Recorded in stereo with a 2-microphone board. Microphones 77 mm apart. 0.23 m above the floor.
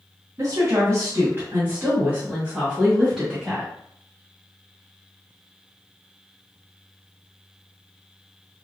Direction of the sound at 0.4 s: 40° right (ahead or behind).